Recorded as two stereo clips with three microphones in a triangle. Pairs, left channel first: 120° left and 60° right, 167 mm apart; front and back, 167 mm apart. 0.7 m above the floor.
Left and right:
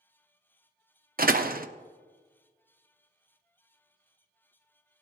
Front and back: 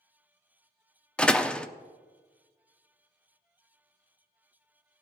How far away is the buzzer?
No buzzer in this recording.